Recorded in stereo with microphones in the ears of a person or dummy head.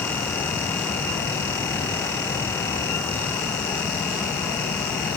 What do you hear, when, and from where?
Only background noise.